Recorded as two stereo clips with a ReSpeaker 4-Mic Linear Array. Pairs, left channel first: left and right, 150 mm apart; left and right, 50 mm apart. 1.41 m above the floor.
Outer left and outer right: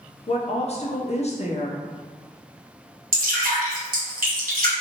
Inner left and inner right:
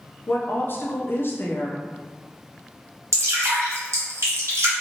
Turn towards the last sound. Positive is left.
turn(degrees=-80)